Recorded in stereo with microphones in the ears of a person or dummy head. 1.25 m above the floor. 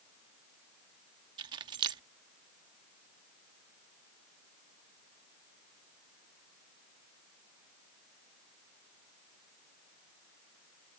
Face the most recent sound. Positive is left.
turn(degrees=-25)  # may be behind; listen again after turning